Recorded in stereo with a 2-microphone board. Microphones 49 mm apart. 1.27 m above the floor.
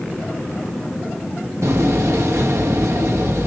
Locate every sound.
1.6 s a door slam: 75° right (ahead or behind), 1.4 m